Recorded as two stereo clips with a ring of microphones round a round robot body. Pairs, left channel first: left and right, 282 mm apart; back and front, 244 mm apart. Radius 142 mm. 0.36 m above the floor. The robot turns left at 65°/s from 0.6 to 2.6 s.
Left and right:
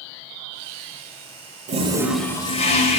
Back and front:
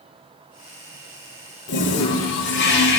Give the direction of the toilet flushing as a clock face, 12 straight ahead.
5 o'clock.